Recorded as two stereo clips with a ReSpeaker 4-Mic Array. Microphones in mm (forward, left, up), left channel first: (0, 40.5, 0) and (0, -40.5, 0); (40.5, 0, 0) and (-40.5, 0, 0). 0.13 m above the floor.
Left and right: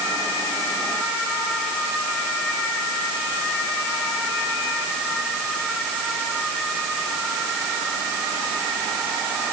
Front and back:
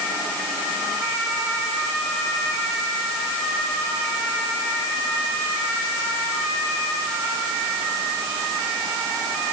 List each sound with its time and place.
Only background noise.